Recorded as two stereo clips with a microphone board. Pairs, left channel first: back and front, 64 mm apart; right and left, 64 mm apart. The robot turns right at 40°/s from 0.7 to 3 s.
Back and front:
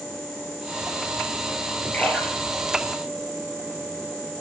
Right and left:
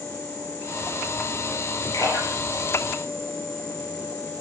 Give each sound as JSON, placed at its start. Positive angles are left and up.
{"t": 1.9, "sound": "a splash", "azimuth_deg": -115, "distance_m": 7.0}